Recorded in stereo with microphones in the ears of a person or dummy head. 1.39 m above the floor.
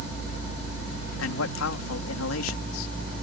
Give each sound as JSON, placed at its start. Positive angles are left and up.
{"t": 1.2, "sound": "a man speaking", "side_deg": 80}